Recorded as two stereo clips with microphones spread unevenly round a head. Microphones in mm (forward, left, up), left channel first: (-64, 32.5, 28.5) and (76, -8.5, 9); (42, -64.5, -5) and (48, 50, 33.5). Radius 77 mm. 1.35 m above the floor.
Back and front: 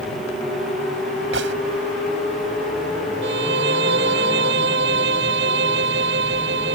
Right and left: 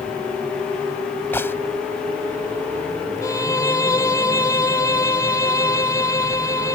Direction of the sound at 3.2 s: 30° right.